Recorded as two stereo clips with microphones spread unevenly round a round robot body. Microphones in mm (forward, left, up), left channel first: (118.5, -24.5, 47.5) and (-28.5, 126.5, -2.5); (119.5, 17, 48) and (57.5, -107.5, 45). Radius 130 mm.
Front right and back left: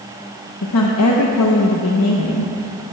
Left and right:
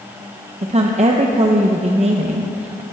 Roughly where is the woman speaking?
Right.